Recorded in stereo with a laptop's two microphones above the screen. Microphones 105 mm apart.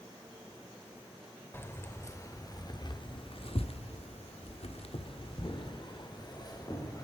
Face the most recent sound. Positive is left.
turn(degrees=35)  # may be behind; listen again after turning